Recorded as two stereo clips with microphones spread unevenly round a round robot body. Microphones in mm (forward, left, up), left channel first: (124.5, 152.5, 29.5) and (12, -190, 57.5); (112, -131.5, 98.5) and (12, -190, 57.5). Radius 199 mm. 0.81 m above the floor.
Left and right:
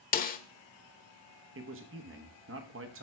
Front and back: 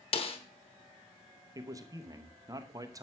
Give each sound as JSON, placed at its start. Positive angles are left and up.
{"t": 0.1, "sound": "a snare drum", "azimuth_deg": 5, "distance_m": 1.0}
{"t": 1.6, "sound": "a man speaking", "azimuth_deg": -155, "distance_m": 1.0}